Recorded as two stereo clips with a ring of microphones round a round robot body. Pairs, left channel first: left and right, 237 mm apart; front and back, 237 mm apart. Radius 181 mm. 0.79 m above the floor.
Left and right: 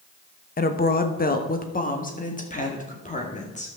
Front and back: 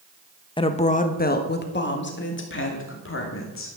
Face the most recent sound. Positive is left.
turn(degrees=30)